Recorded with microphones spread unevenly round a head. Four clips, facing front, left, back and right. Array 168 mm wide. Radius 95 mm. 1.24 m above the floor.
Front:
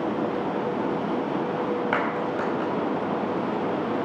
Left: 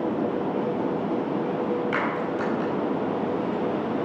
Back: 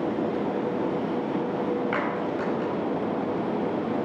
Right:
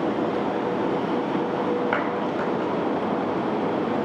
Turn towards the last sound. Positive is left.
turn(degrees=-45)